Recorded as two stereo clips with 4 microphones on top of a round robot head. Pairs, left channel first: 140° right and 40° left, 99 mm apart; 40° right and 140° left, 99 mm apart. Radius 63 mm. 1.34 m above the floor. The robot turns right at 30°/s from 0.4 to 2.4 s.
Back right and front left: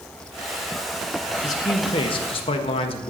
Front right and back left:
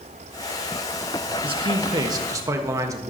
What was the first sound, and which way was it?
A man speaking, 170° left.